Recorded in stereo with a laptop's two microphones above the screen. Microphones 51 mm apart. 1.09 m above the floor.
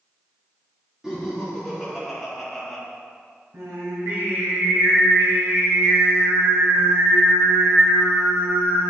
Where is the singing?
75° right (ahead or behind), 2.5 m.